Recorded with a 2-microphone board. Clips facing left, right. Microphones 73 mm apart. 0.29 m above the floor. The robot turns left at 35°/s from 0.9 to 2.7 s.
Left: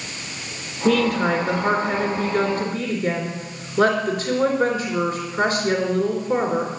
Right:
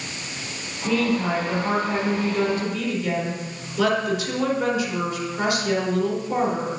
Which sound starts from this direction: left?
A woman speaking, at 0.8 s.